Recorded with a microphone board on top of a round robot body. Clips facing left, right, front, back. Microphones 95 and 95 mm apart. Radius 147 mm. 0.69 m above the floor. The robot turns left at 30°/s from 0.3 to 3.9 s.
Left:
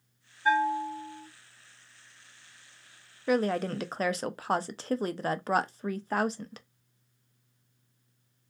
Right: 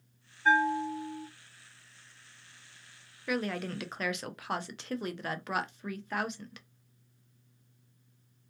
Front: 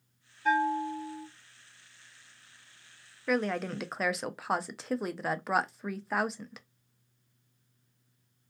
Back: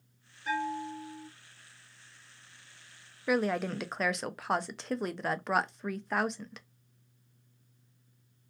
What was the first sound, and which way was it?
A bell, 10° left.